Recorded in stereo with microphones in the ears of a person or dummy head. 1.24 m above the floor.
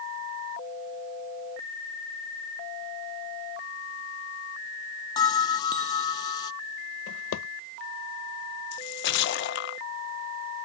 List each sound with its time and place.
5.2 s a bell: 25° left (ahead or behind)
7.1 s a drawer: 85° left
8.7 s a splash: 55° left (ahead or behind)